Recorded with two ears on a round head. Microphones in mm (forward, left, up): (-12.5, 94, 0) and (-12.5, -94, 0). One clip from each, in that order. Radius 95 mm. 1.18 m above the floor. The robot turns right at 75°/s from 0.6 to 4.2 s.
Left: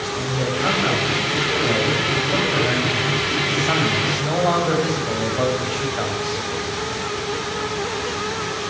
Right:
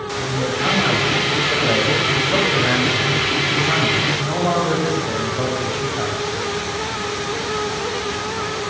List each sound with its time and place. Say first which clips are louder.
0.2 s a man speaking: right 3 dB; 160° left, 7.5 m; by 6.4 s 70° left, 7.5 m